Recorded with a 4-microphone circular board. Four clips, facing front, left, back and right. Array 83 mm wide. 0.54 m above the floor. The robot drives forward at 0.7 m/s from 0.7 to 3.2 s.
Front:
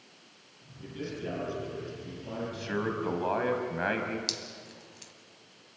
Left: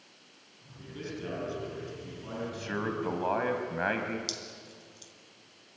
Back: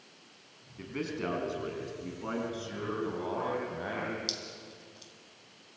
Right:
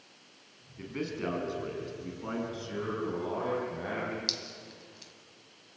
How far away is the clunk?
I don't hear a clunk.